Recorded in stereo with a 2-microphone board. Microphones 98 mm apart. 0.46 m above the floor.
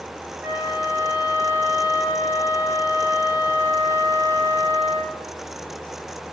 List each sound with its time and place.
0.4 s a flute: 25° right (ahead or behind), 1.1 m